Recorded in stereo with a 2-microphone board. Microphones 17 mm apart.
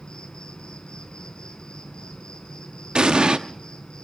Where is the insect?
55° left (ahead or behind), 4 m.